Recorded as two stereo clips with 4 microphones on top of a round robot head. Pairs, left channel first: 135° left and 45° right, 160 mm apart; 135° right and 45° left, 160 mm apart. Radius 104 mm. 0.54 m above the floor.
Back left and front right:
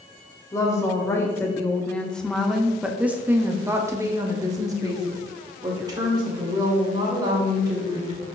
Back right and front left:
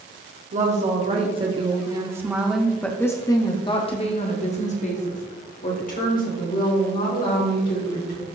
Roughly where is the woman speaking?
Left.